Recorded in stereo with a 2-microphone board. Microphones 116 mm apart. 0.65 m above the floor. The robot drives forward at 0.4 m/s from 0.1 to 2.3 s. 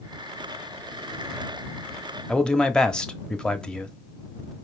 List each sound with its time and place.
2.3 s a man speaking: 5° left (ahead or behind), 0.9 m